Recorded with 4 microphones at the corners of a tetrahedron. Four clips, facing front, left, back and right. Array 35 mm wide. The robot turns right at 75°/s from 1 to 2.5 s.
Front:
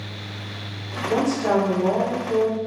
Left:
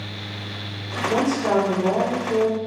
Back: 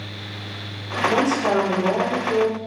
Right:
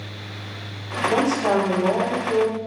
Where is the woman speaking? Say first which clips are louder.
Even, even; 120° right, 0.9 m; by 2.6 s 15° right, 0.9 m.